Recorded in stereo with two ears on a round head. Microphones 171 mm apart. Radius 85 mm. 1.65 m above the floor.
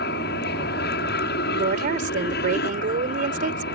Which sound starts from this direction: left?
An aircraft, at 0.0 s.